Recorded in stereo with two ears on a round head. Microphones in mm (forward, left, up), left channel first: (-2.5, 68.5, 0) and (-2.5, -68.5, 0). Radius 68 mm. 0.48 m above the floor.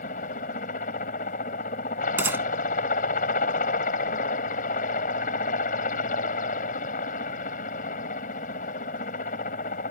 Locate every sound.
0.0 s a helicopter: 55° left (ahead or behind)
2.2 s a gunshot: 15° right (ahead or behind)